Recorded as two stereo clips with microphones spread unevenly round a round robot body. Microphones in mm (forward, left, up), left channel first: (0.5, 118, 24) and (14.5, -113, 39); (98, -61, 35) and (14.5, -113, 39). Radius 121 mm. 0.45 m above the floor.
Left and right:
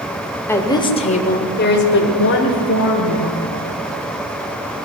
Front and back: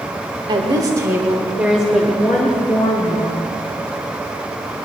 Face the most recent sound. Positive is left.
turn(degrees=100)